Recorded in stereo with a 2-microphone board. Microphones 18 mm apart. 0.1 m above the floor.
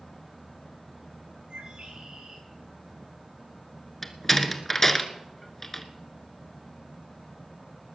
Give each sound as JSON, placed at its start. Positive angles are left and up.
{"t": 1.5, "sound": "a bird", "side_deg": -70, "distance_m": 9.0}
{"t": 4.0, "sound": "a door slam", "side_deg": 10, "distance_m": 1.3}